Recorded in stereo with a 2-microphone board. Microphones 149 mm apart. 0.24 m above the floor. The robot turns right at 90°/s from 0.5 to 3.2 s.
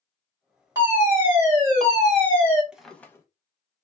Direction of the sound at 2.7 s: 10° right.